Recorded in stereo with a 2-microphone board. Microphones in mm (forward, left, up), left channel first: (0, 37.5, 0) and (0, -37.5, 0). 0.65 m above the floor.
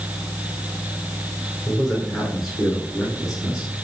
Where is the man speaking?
Centre (ahead or behind), 8 m; by 3.7 s 10° right (ahead or behind), 6.5 m.